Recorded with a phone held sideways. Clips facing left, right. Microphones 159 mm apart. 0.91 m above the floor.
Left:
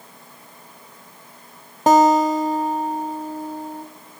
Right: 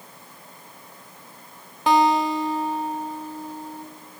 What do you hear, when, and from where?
1.9 s a guitar: 45° left (ahead or behind), 1.0 m